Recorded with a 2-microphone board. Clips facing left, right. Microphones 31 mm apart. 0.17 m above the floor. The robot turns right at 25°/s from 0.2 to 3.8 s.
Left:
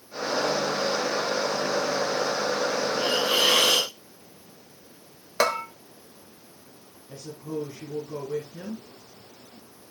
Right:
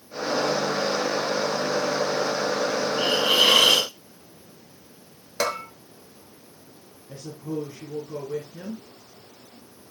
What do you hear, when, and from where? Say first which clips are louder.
3.0 s a hiss: right 4 dB; 60° right (ahead or behind), 5 m; by 3.9 s 75° right (ahead or behind), 5 m
5.4 s a bell: left 3 dB; 30° left (ahead or behind), 1.1 m
7.1 s a woman speaking: right 2 dB; 10° right (ahead or behind), 2.5 m